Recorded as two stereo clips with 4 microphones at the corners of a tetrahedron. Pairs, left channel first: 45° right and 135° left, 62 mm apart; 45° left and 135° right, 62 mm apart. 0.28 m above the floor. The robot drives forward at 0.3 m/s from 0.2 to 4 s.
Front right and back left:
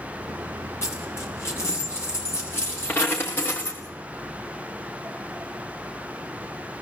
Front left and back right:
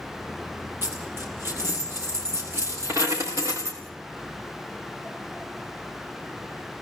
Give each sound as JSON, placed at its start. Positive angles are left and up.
{"t": 0.8, "sound": "a dropped coin", "azimuth_deg": -90, "distance_m": 4.0}